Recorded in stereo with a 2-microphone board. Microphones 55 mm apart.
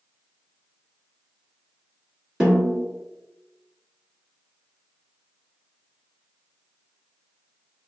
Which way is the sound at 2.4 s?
15° right (ahead or behind).